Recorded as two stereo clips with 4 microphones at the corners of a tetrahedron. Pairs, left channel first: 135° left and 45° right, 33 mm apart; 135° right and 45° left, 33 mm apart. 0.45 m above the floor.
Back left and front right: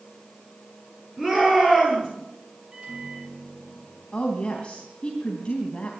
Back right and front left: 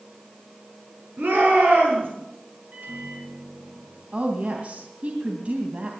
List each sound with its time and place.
1.2 s a shout: 40° left, 7.5 m
2.7 s a microwave: 10° left, 7.5 m
4.1 s a woman speaking: 85° left, 2.5 m